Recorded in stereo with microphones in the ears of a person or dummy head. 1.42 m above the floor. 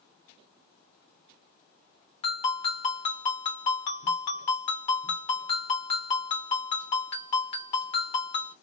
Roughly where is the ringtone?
Left.